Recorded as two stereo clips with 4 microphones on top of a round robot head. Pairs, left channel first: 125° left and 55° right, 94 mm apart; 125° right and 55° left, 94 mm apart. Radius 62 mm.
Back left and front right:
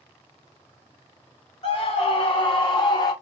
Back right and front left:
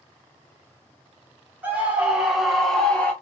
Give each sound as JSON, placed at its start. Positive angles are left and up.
{"t": 1.6, "sound": "a scream", "azimuth_deg": 130, "distance_m": 1.6}